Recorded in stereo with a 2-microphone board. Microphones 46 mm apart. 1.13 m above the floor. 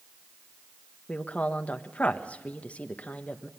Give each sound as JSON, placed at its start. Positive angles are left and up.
{"t": 1.1, "sound": "a woman speaking", "side_deg": 30, "distance_m": 1.3}